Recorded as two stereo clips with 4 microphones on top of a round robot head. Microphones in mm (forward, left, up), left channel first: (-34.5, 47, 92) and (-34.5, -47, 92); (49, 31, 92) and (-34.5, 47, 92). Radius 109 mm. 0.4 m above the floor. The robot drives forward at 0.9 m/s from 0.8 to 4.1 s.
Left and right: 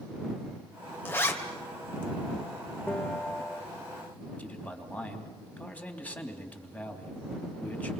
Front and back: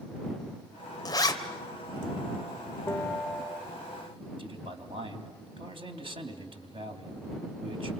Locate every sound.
1.1 s a zipper: 25° left, 3 m; by 1.4 s 30° left, 2.5 m
2.9 s a bell: 20° left, 0.9 m; by 3.7 s 140° left, 0.8 m
4.4 s a man speaking: 165° left, 3 m